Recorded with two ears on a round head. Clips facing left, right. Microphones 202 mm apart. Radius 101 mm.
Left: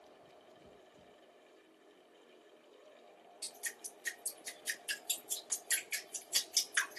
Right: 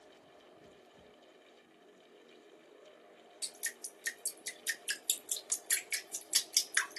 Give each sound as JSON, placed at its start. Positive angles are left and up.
{"t": 3.4, "sound": "dripping", "side_deg": -30, "distance_m": 1.3}